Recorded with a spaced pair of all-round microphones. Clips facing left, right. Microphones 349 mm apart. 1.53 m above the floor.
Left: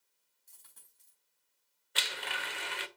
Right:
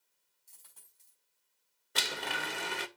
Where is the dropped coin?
30° left (ahead or behind), 5 m.